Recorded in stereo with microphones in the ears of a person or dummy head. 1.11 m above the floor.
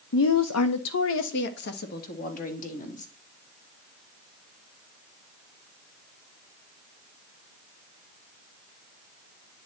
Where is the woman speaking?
60° left (ahead or behind), 0.7 m; by 3.1 s 40° left (ahead or behind), 2 m.